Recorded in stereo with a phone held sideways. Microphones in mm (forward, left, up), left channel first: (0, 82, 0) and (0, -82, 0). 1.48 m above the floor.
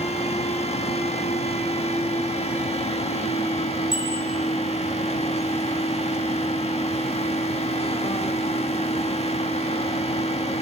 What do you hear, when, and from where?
0.0 s a fan: 40° left (ahead or behind), 1.1 m
3.9 s a bicycle bell: 30° left (ahead or behind), 8.5 m